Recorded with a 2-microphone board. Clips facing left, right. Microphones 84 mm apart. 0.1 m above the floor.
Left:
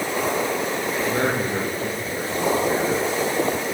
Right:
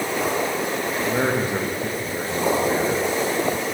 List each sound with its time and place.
1.1 s a man speaking: 10° right (ahead or behind), 3.5 m